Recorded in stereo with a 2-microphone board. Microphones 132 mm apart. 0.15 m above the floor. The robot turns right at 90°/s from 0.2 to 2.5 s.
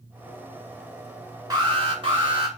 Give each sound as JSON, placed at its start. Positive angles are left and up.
{"t": 1.5, "sound": "an alarm", "azimuth_deg": -140, "distance_m": 1.6}